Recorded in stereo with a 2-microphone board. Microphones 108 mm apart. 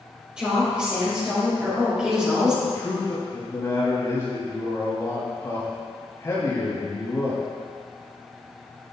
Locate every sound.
0.4 s a woman speaking: 10° right (ahead or behind), 2 m
2.6 s a man speaking: 30° left (ahead or behind), 3 m